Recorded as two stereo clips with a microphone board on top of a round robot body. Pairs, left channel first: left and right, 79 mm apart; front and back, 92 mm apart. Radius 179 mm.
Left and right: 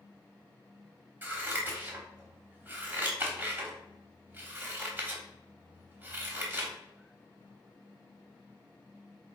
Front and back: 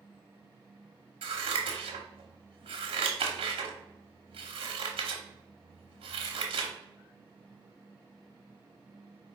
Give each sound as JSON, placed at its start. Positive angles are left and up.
{"t": 1.2, "sound": "scissors", "azimuth_deg": -160, "distance_m": 0.7}